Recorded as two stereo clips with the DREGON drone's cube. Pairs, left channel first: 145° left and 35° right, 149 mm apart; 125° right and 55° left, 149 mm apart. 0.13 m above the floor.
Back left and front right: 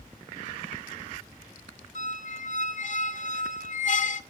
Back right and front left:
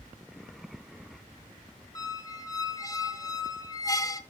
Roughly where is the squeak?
Behind.